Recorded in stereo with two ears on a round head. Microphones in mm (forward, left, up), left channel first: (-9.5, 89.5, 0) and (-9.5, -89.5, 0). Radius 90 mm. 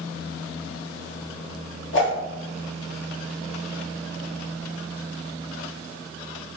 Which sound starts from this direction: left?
A whoosh, at 1.9 s.